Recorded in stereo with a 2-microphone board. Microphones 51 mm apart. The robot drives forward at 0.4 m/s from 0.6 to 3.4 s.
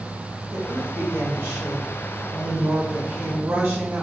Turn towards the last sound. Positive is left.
turn(degrees=-55)  # may be behind; listen again after turning